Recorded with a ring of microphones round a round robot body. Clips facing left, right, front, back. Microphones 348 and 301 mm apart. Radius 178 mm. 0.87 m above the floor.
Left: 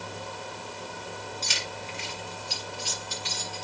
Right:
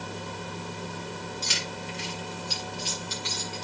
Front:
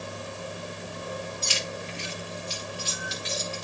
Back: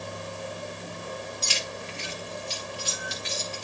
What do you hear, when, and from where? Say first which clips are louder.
1.4 s keys jangling: right 2 dB, front 2 dB; 160° right, 7 m; by 3.6 s 150° right, 7 m